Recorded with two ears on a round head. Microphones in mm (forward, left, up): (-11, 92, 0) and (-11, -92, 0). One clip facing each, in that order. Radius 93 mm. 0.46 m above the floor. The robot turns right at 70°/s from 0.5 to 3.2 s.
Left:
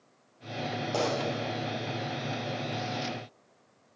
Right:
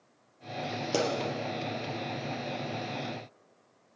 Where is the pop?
40° right (ahead or behind), 4 m; by 1.1 s 30° right (ahead or behind), 4 m.